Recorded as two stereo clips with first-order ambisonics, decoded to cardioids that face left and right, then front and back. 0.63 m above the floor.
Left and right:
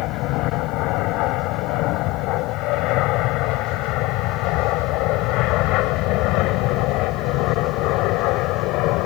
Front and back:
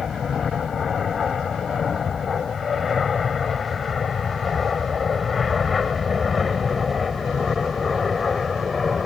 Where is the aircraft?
65° left; by 9.1 s 75° left.